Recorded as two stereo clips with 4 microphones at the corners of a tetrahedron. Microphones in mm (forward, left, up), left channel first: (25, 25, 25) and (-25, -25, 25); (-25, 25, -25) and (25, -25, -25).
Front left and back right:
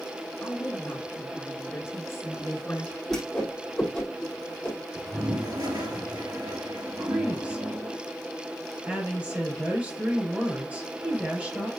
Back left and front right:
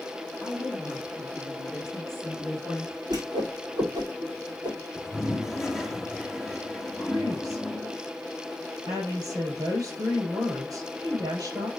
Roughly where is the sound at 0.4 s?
Ahead.